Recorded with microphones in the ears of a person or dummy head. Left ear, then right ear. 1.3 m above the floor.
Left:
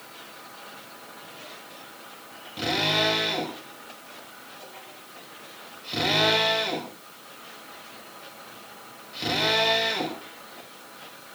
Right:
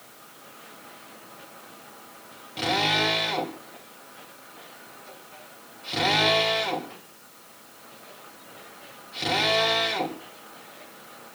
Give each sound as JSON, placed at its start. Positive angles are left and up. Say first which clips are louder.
{"t": 2.6, "sound": "a drill", "louder": "right 1 dB", "side_deg": -25, "distance_m": 5.5}